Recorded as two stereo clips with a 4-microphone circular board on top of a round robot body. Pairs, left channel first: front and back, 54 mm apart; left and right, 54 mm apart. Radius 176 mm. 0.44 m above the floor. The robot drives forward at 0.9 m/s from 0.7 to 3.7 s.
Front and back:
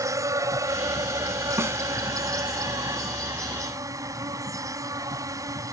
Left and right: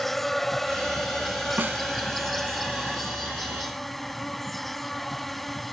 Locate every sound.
0.0 s an insect: 175° left; by 5.7 s straight behind
1.6 s a snare drum: 145° right